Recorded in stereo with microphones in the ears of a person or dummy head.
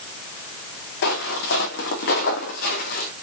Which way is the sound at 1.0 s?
65° left (ahead or behind).